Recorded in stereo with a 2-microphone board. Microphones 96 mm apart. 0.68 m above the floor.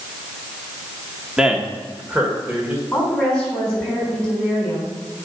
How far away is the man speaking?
About 1.0 m.